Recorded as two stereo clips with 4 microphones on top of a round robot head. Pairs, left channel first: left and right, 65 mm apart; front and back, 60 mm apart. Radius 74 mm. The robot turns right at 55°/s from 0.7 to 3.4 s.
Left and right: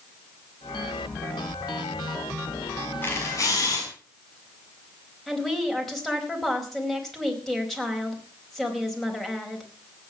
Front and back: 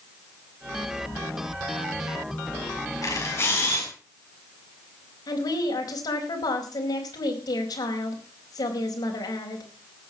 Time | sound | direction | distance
3.0 | a camera shutter | 30° left | 6.5 m
5.3 | a woman speaking | 5° left | 4 m